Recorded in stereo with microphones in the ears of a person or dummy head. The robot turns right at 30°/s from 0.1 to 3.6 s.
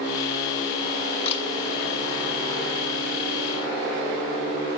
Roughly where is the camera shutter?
Left.